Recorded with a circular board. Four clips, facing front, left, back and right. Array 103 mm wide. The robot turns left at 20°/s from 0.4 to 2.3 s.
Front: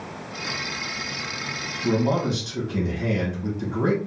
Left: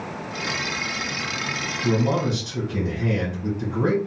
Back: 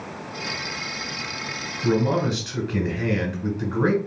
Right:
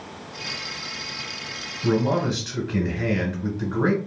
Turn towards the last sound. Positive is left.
turn(degrees=-130)